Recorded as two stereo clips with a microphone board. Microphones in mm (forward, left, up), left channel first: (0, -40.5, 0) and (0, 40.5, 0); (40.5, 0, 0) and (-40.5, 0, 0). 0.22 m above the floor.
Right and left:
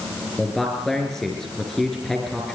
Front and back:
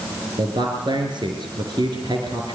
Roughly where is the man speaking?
Behind.